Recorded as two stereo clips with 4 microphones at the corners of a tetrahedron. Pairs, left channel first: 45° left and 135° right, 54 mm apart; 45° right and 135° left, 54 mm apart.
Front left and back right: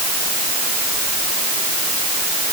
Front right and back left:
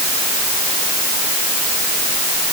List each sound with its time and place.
Only background noise.